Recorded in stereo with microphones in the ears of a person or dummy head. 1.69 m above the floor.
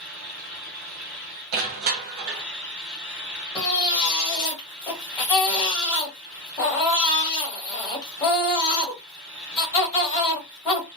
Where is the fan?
60° right (ahead or behind), 1.9 m.